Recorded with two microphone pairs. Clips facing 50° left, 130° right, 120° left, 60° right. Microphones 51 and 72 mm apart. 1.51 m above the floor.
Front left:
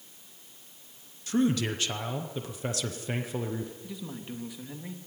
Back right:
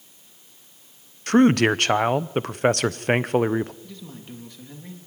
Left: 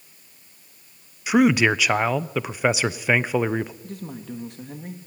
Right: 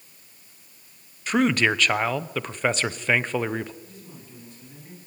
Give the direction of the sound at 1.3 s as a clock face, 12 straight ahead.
5 o'clock.